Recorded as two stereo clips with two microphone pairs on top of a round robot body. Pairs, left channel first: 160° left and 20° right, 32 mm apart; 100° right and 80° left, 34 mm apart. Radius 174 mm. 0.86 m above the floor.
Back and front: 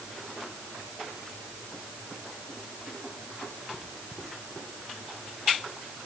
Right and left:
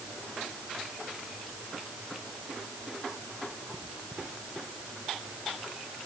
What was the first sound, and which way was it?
Only background noise.